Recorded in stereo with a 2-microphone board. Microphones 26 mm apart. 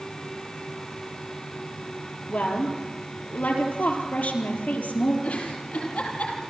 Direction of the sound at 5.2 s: 75° left (ahead or behind).